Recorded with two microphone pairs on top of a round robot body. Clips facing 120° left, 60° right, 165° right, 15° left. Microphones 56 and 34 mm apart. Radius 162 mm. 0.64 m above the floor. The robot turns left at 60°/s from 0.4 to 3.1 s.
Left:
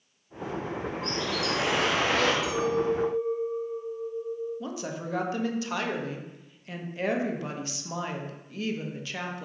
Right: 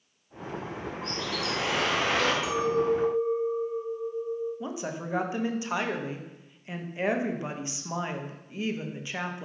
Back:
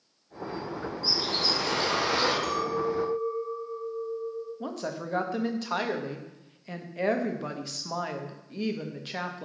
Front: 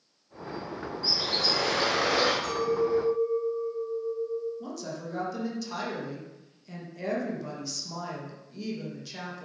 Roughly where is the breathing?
I don't hear breathing.